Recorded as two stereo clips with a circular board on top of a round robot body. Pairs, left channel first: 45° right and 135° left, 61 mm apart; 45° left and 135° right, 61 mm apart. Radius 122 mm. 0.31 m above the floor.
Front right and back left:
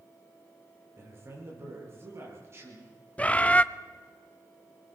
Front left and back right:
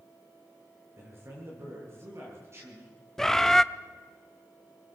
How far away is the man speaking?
About 9 m.